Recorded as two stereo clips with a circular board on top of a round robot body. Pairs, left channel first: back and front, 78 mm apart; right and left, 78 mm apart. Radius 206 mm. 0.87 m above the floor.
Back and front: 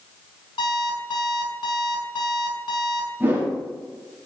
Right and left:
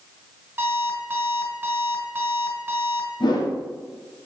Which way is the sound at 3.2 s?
65° right.